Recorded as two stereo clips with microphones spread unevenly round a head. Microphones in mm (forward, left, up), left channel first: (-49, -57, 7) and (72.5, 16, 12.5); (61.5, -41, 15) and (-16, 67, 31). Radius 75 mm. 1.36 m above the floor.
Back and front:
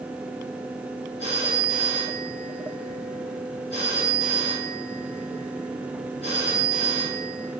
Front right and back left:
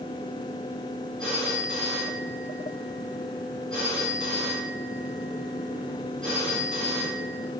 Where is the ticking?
No ticking in this recording.